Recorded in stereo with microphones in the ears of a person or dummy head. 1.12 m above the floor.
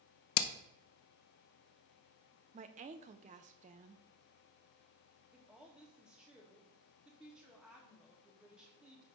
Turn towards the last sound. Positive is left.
turn(degrees=0)  # may be behind; listen again after turning